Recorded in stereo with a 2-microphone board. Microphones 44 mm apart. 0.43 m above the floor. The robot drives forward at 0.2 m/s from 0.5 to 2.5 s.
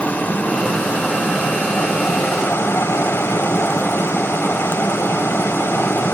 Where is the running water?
40° left (ahead or behind), 0.9 m; by 6.1 s 65° left (ahead or behind), 0.6 m.